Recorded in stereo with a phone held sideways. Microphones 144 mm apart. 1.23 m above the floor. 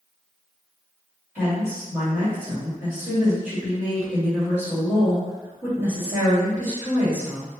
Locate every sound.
1.4 s a woman speaking: 15° right (ahead or behind), 1.9 m